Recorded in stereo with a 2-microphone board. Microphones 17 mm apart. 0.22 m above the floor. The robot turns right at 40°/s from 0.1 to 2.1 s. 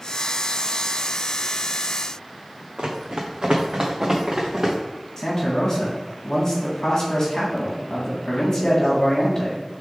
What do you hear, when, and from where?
2.8 s running footsteps: 75° right (ahead or behind), 1.0 m; by 4.8 s 45° right (ahead or behind), 1.9 m
5.2 s a man speaking: 35° left (ahead or behind), 1.2 m